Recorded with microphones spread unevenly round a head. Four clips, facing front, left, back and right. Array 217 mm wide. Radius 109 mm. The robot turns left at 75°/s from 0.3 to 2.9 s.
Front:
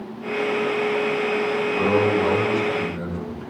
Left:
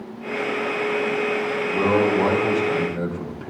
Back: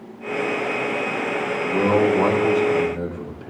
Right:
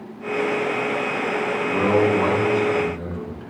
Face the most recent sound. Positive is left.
turn(degrees=125)